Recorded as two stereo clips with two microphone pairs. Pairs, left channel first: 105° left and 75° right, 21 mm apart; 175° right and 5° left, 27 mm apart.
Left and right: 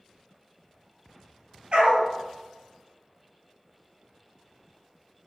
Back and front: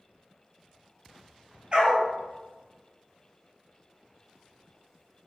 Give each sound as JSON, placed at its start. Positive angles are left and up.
{"t": 1.7, "sound": "a dog barking", "azimuth_deg": -45, "distance_m": 1.4}